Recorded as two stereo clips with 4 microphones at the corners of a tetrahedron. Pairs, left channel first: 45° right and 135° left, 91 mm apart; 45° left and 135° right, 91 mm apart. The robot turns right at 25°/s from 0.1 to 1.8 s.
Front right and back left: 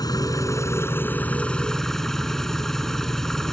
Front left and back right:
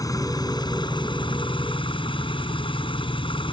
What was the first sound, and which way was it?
An engine running, straight ahead.